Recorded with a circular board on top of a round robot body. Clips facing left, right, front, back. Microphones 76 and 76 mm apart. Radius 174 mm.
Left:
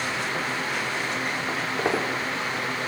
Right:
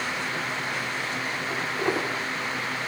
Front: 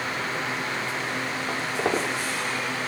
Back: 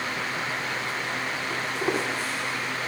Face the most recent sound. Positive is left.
turn(degrees=30)